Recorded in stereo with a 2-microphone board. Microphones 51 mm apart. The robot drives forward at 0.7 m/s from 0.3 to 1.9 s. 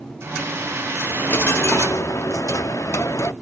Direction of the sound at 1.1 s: 40° left (ahead or behind).